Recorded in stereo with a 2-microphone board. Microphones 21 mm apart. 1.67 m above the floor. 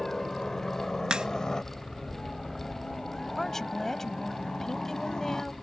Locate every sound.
0.0 s a helicopter: 20° left (ahead or behind); by 5.6 s 30° left (ahead or behind)
1.1 s a crack: 40° right (ahead or behind)
3.4 s a woman speaking: 15° left (ahead or behind)